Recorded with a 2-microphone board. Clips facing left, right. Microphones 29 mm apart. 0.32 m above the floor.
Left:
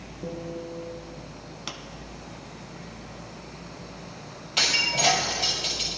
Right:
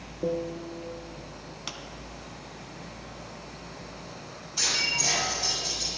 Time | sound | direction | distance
0.2 | a piano | 65° right (ahead or behind) | 1.1 m
1.7 | a pop | centre (ahead or behind) | 1.0 m
4.6 | breaking glass | 65° left (ahead or behind) | 4.5 m